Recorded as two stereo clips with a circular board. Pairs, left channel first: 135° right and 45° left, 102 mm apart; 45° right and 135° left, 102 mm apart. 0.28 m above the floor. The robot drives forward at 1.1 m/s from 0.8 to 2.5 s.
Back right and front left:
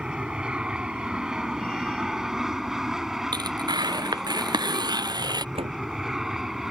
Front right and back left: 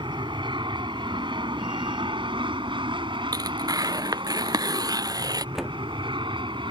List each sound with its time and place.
0.0 s an aircraft: 125° left; by 6.7 s 130° left
3.3 s tearing paper: 90° left
5.5 s a door slam: 50° left